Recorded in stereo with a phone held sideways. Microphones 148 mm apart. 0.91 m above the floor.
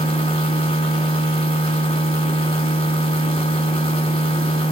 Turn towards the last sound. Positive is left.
turn(degrees=35)  # may be behind; listen again after turning